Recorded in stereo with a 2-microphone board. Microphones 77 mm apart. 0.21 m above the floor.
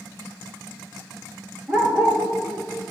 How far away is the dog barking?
About 1.3 m.